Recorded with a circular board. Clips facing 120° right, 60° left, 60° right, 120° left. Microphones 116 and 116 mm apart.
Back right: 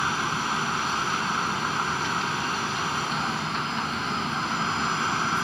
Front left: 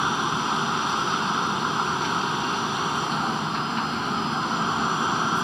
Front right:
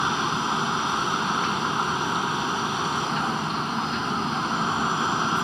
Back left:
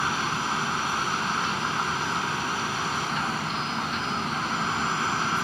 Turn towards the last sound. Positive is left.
turn(degrees=0)